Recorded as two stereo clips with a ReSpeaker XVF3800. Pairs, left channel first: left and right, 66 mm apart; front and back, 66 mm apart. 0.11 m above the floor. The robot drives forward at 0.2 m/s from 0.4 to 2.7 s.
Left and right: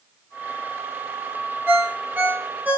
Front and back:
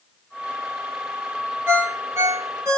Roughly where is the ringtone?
Behind right.